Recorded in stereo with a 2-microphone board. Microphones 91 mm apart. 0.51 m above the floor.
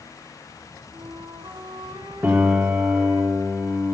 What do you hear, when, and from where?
0.9 s a flute: 60° right (ahead or behind), 5 m
2.2 s a piano: 20° right (ahead or behind), 4 m